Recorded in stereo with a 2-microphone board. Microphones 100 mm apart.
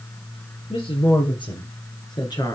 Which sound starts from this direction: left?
A woman speaking, at 0.7 s.